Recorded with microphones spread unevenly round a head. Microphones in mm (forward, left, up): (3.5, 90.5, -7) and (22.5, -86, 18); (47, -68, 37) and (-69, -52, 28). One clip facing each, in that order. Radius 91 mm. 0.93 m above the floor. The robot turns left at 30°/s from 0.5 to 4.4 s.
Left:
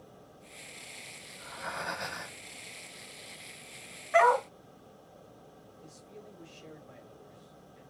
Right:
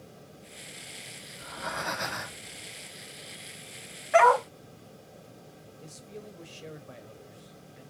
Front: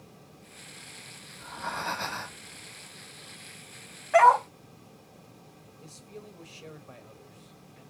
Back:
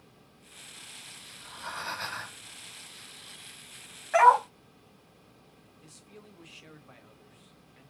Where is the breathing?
35° right, 0.9 m; by 2.5 s 70° right, 0.9 m.